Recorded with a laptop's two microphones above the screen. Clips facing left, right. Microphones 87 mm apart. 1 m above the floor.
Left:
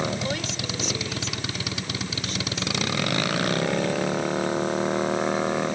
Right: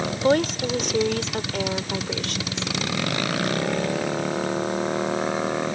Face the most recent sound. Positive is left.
turn(degrees=-85)